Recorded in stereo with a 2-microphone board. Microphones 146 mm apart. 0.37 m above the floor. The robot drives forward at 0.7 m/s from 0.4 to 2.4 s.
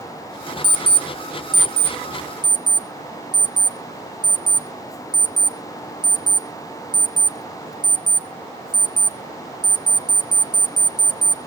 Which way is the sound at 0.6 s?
75° right (ahead or behind).